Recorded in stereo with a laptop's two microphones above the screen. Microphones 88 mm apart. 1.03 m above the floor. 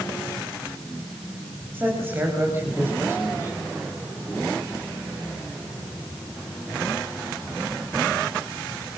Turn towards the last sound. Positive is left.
turn(degrees=-35)  # may be behind; listen again after turning